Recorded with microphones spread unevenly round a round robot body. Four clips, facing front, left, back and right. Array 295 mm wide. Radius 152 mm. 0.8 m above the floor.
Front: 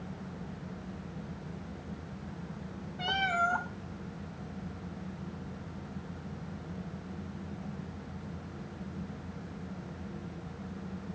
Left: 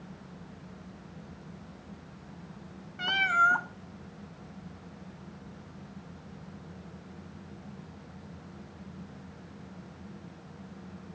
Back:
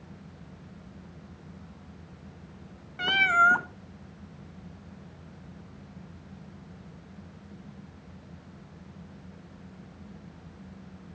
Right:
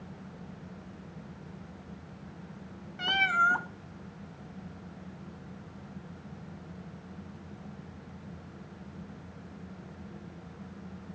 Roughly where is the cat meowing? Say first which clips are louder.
Left 1 dB, back 7 dB; behind.